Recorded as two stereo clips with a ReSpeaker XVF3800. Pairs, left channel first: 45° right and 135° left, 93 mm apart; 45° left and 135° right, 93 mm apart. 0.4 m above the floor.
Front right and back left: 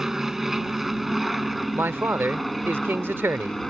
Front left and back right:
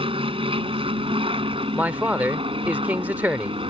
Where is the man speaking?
170° left.